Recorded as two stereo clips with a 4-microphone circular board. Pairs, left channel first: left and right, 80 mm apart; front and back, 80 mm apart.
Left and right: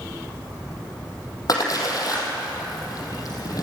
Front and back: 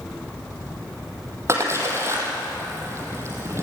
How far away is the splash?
About 5 m.